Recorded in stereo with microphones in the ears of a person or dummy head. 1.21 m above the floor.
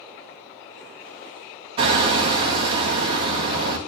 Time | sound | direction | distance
1.8 | hammering | 30° right (ahead or behind) | 3.5 m